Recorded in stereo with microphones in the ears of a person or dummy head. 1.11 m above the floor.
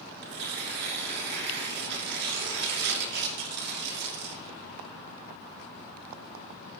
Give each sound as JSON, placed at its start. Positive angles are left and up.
{"t": 0.2, "sound": "tearing paper", "side_deg": -55, "distance_m": 2.5}